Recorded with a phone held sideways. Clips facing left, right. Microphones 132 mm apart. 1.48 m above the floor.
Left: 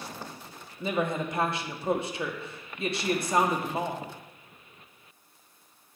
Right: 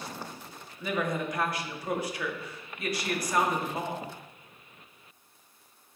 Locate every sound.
0.8 s a woman speaking: 25° left (ahead or behind), 1.0 m